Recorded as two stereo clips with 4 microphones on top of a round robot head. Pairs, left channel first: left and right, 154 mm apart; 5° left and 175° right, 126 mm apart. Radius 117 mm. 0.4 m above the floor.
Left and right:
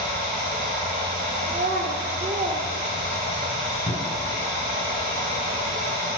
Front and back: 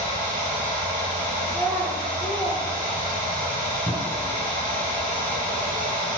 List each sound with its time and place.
0.0 s running water: 145° right, 2.5 m
1.5 s a child speaking: 65° right, 0.6 m
3.9 s a cupboard door: 55° left, 2 m